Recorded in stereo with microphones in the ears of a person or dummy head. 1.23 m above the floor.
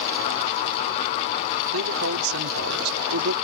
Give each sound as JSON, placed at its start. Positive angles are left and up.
{"t": 1.7, "sound": "a man speaking", "side_deg": -80}